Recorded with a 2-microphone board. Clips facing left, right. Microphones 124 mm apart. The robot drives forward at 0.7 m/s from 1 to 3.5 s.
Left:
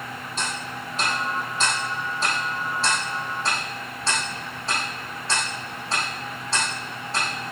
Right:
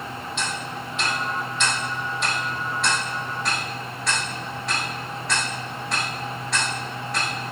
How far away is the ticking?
About 4.5 m.